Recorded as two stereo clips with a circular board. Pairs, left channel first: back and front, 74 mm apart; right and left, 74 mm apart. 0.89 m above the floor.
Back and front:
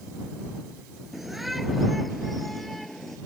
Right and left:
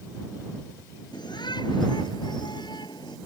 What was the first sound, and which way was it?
A shout, 90° right.